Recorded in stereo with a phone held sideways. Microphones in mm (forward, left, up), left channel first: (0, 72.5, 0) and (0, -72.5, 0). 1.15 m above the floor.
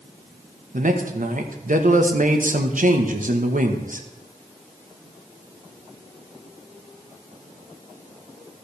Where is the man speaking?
65° right (ahead or behind), 1.1 m.